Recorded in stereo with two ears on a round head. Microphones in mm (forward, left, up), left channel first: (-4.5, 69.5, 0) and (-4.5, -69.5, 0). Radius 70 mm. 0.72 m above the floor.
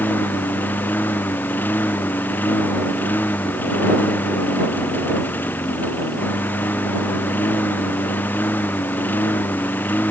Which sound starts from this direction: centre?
A lawn mower, at 0.0 s.